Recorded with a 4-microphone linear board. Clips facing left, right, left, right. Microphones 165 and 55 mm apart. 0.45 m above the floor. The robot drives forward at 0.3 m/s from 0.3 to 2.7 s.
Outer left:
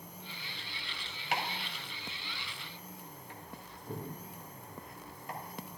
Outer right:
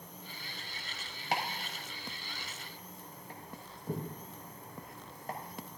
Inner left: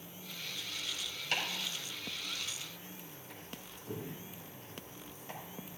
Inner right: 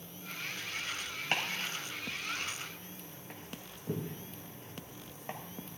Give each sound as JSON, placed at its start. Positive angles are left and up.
{"t": 1.3, "sound": "chopping", "side_deg": -40, "distance_m": 2.0}